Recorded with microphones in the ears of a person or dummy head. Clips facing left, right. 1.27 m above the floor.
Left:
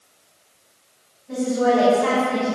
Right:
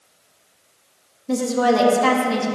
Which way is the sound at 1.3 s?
85° right.